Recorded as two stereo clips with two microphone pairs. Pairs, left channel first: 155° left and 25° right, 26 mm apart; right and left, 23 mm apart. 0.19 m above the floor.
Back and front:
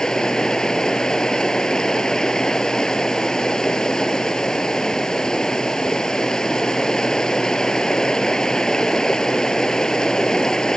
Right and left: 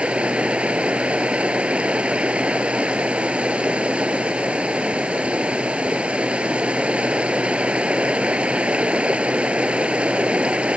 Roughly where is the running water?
Left.